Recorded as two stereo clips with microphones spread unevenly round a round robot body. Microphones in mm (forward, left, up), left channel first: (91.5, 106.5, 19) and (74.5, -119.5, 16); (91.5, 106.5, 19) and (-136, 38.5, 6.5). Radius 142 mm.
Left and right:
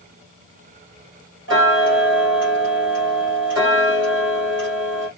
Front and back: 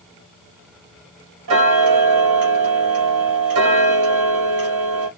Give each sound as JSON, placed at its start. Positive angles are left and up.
{"t": 1.5, "sound": "ticking", "azimuth_deg": -145, "distance_m": 1.8}